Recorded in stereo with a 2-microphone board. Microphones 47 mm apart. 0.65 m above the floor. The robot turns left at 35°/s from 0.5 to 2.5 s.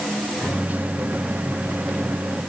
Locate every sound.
Only background noise.